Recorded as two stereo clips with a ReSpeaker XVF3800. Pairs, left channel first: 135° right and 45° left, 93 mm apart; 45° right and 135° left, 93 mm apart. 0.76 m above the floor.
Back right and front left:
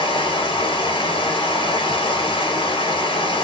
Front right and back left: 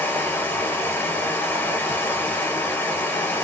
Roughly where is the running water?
Right.